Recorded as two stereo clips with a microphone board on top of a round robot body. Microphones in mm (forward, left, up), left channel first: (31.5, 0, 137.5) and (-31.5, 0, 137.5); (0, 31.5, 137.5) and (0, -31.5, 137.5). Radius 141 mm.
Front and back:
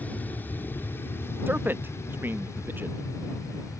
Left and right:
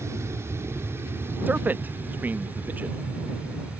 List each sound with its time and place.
0.0 s an aircraft: 60° right; by 3.8 s 20° right
1.5 s a man speaking: 140° right